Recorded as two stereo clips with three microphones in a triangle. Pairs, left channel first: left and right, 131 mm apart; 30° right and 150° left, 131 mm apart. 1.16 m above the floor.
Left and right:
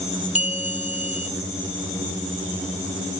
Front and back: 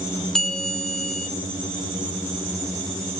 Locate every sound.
0.3 s a bell: 55° left, 2.5 m